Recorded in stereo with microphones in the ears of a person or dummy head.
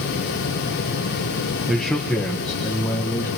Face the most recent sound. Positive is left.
turn(degrees=20)  # may be behind; listen again after turning